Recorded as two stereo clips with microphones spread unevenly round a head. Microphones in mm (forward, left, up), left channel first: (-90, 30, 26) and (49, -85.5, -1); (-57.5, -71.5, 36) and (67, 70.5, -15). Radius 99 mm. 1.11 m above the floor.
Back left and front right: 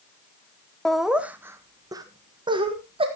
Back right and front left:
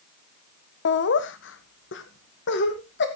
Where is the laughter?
125° right, 0.8 m; by 3.1 s 95° right, 1.7 m.